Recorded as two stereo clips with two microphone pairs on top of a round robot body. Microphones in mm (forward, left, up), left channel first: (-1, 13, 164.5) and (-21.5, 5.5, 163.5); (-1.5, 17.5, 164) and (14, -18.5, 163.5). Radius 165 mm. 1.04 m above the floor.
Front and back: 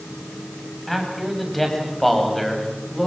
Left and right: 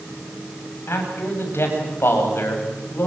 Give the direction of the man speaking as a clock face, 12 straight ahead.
8 o'clock.